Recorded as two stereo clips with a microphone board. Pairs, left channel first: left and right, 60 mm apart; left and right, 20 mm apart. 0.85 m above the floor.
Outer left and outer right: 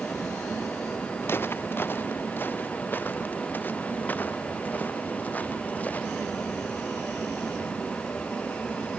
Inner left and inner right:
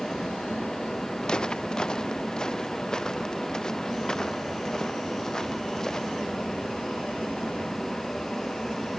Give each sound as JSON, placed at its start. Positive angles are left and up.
{"t": 1.2, "sound": "footsteps", "side_deg": 40}